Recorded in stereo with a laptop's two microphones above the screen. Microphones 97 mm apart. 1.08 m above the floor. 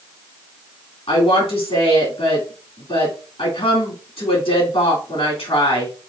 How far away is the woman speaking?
About 2.5 m.